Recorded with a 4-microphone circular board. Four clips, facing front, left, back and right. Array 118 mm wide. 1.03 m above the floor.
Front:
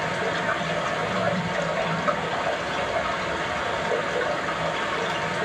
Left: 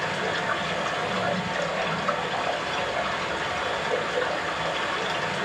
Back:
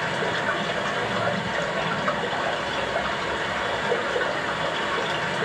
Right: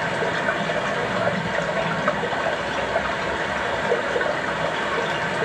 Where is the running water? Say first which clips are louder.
Right 4 dB, even; 95° right, 1.1 m.